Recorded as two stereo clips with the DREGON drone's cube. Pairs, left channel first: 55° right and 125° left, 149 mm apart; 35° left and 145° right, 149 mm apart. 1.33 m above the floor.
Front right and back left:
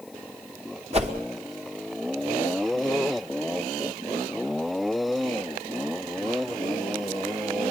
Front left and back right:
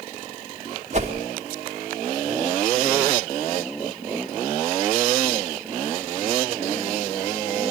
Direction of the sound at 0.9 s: 170° left.